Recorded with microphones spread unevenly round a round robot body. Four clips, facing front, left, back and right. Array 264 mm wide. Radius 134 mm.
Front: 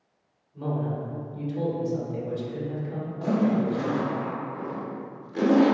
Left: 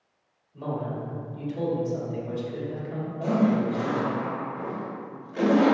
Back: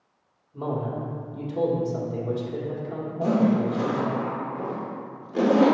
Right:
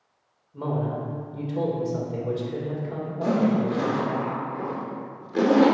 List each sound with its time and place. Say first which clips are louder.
0.5 s a man speaking: right 3 dB, back 1 dB; 135° right, 2.5 m
3.2 s a zipper: right 1 dB, back 2 dB; 120° right, 1.8 m